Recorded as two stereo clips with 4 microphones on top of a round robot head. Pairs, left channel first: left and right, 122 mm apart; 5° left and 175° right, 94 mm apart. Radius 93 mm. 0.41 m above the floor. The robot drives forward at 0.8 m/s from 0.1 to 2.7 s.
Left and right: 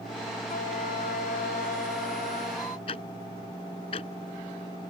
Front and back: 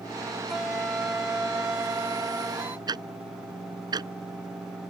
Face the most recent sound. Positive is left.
turn(degrees=140)